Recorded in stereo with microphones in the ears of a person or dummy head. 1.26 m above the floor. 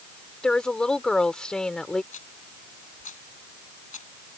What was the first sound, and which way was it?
A woman speaking, 5° left (ahead or behind).